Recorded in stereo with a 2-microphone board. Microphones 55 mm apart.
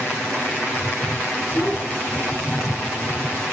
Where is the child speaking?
35° left (ahead or behind), 10 m; by 3.1 s 30° left (ahead or behind), 9.5 m.